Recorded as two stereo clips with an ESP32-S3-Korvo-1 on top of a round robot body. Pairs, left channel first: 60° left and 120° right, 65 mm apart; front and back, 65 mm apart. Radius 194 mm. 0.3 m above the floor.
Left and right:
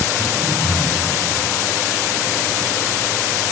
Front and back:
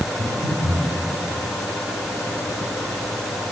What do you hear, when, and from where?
0.2 s breathing: straight behind, 4 m